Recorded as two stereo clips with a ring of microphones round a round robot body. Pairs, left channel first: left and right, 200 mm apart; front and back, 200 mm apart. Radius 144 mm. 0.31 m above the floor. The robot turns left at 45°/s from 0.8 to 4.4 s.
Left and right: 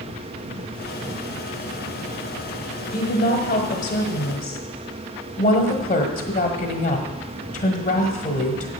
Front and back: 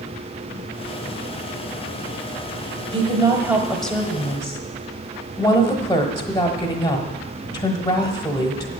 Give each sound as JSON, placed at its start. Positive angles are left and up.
{"t": 2.9, "sound": "a woman speaking", "azimuth_deg": 130, "distance_m": 1.3}